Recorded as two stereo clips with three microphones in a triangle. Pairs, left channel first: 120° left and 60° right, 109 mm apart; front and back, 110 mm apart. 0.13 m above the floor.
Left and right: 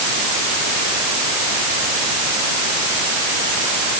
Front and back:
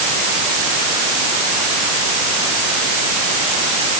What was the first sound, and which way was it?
Only background noise.